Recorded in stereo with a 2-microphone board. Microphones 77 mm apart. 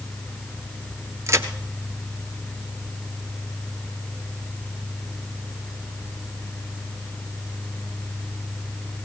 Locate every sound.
1.3 s a crack: 40° right (ahead or behind), 1.3 m